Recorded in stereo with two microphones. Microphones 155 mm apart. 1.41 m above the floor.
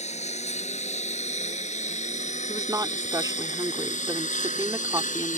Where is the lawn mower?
45° left (ahead or behind); by 5.4 s 55° left (ahead or behind).